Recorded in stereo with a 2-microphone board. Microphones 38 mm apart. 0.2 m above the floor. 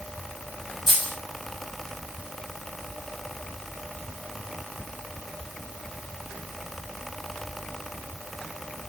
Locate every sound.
0.9 s a dropped coin: 10° right (ahead or behind), 3 m